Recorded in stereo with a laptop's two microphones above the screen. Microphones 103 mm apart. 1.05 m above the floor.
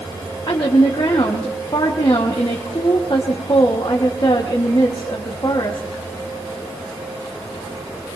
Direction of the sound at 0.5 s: 50° left (ahead or behind).